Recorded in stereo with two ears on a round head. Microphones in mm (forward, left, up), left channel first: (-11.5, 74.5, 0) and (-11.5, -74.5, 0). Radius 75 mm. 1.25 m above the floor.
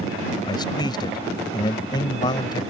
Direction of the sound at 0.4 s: 25° left (ahead or behind).